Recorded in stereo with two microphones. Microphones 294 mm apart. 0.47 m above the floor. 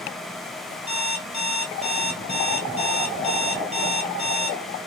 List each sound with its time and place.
0.9 s an alarm clock: 20° left (ahead or behind), 1.0 m